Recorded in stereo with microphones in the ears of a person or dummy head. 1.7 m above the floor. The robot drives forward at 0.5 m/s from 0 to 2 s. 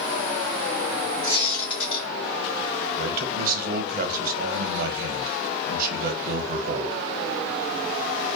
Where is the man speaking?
55° right (ahead or behind), 0.6 m.